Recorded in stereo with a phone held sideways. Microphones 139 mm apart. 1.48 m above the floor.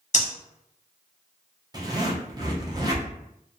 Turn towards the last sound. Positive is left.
turn(degrees=-25)  # may be behind; listen again after turning